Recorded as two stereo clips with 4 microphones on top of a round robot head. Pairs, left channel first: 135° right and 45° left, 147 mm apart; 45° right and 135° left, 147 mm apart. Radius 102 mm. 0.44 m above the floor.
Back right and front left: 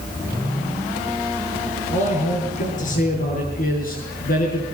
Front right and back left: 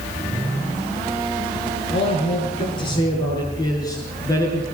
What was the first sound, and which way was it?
A man speaking, 100° right.